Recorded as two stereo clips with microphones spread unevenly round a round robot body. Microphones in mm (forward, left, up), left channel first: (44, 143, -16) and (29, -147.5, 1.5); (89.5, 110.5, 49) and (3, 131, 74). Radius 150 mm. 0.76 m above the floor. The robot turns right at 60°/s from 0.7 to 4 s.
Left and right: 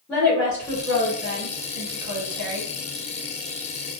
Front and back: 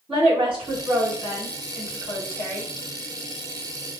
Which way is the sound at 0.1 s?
Straight behind.